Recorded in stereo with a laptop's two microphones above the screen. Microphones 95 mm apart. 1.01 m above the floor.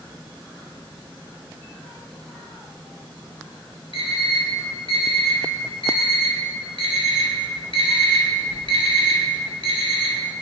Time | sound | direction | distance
3.9 | an alarm clock | 75° left (ahead or behind) | 2.5 m